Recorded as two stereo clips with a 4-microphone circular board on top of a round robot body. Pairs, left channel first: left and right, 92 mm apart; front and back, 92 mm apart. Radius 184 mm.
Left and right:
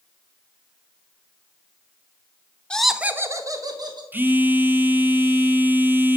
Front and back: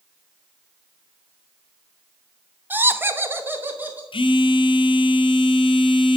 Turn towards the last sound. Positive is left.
turn(degrees=-20)